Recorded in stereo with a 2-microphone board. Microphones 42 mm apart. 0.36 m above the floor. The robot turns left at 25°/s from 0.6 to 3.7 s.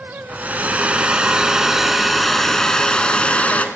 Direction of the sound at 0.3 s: 140° right.